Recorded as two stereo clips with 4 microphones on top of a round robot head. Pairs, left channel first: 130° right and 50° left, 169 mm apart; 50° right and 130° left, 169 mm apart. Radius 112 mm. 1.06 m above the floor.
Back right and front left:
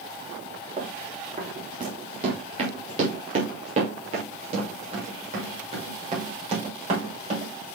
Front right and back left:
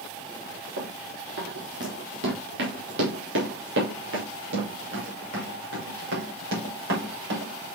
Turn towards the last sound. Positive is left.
turn(degrees=105)